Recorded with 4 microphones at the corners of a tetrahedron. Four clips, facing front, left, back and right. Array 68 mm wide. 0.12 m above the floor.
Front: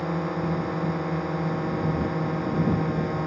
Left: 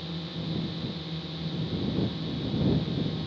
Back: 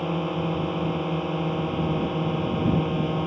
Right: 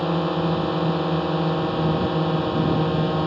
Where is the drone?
100° right.